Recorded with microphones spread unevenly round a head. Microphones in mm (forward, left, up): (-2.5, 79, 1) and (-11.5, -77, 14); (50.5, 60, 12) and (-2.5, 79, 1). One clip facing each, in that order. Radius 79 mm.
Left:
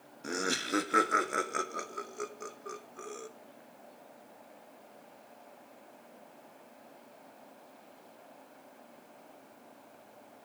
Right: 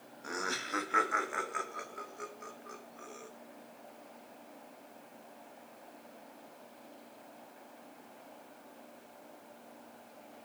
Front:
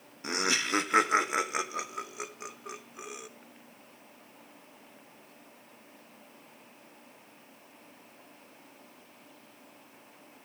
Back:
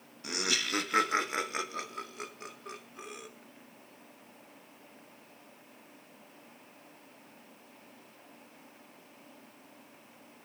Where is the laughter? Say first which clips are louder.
Left 5 dB, front 4 dB; 35° left, 1.1 m; by 3.3 s 65° left, 3 m.